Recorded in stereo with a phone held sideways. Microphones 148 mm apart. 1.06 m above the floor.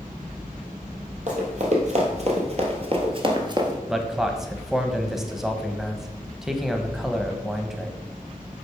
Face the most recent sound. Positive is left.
turn(degrees=-5)  # may be behind; listen again after turning